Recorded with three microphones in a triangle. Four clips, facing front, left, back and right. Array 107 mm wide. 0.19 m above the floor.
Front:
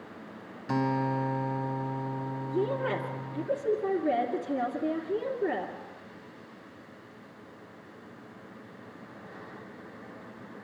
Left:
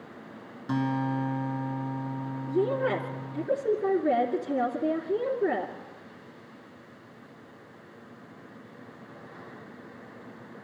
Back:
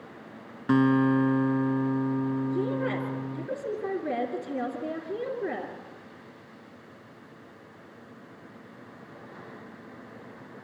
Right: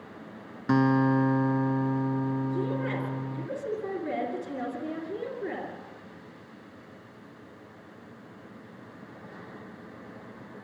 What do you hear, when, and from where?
0.7 s a guitar: 130° right, 1.3 m
2.5 s a woman speaking: 95° left, 3 m